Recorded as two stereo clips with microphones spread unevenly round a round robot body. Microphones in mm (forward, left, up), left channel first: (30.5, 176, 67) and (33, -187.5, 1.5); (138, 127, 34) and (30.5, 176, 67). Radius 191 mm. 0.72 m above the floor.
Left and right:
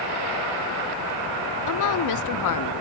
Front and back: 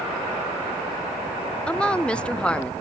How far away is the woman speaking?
About 0.9 m.